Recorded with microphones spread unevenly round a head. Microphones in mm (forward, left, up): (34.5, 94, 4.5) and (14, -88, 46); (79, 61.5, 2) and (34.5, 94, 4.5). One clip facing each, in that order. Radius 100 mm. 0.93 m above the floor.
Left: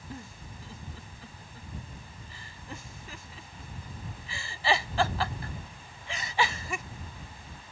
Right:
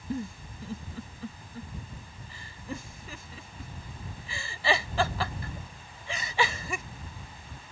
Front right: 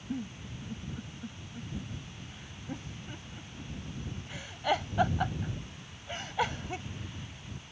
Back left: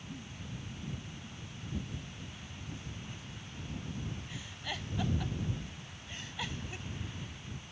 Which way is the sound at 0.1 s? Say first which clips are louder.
Right 11 dB, front right 9 dB; 105° right.